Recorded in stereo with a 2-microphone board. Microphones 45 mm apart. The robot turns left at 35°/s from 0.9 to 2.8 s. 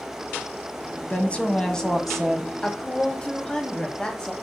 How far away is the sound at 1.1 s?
About 1.6 m.